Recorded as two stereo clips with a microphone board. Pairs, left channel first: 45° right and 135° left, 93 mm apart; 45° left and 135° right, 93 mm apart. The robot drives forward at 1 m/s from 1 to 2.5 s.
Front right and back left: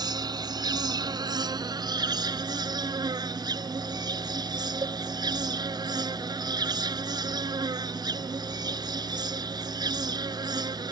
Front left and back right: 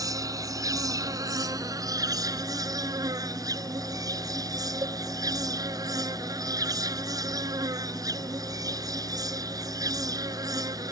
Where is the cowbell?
175° left.